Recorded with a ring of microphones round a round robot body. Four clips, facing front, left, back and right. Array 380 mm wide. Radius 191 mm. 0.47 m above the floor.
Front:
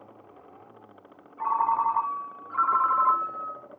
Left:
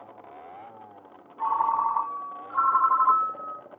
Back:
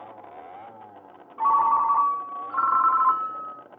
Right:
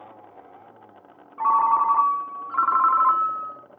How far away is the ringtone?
About 2.5 m.